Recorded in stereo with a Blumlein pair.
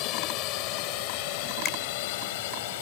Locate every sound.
0.0 s a drone: 40° left; by 2.8 s 50° left
1.6 s a finger snap: 30° left